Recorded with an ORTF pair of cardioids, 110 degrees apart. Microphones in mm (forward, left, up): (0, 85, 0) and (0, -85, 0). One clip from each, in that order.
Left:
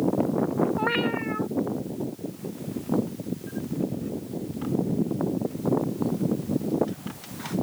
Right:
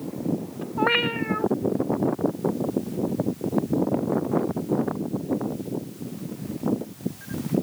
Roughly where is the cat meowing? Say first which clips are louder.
Right 3 dB; ahead right.